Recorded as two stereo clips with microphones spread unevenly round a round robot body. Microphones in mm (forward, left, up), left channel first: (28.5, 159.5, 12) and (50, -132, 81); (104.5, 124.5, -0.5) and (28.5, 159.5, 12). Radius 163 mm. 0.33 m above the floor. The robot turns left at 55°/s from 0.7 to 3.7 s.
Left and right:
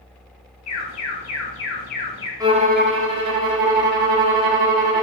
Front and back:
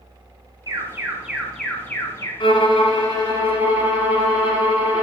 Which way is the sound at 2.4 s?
5° right.